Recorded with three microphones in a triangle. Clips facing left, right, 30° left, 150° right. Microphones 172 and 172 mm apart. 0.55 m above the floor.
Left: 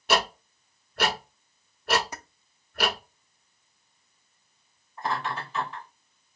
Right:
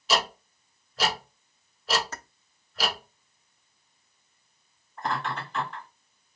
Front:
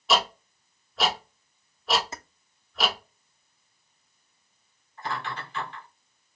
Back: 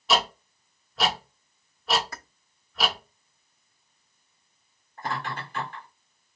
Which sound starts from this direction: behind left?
Ticking, at 0.1 s.